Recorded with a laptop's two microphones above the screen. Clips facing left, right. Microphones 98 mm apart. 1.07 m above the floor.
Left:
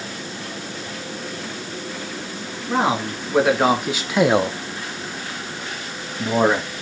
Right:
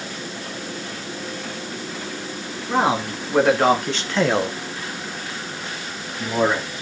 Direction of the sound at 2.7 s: Centre (ahead or behind).